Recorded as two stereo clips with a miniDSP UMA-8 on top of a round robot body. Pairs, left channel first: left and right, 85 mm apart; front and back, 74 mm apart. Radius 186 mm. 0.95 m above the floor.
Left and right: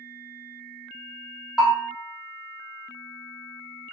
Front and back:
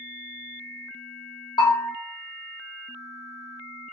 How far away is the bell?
About 0.6 m.